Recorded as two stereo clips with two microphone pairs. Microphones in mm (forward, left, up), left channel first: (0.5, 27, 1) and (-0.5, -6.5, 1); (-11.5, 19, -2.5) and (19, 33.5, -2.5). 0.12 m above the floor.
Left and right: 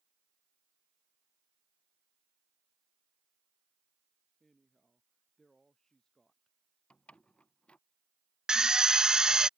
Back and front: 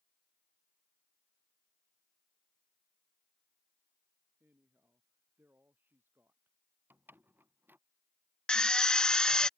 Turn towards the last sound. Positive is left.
turn(degrees=-125)